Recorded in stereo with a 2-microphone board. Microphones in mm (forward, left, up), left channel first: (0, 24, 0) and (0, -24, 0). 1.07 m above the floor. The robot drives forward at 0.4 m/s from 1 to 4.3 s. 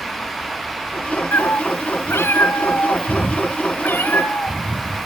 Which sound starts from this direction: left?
A cat meowing, at 1.3 s.